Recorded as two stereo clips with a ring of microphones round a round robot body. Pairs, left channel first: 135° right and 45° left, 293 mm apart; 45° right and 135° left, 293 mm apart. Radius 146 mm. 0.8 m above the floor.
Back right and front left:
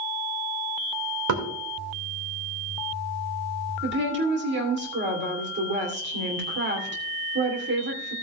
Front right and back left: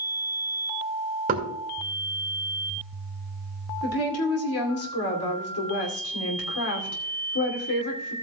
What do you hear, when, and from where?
1.3 s knocking: 75° left, 2 m
3.8 s a woman speaking: 5° right, 2.5 m